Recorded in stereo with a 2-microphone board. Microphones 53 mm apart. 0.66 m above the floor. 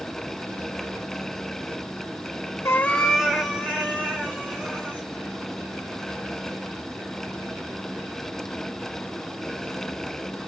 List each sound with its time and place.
2.6 s a cat meowing: 60° left (ahead or behind), 0.5 m; by 5.1 s 30° right (ahead or behind), 3.5 m